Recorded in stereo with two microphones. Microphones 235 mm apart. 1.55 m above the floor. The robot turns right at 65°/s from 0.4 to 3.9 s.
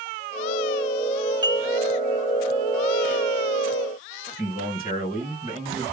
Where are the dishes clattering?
20° right (ahead or behind), 2 m; by 1.7 s 5° right (ahead or behind), 2 m.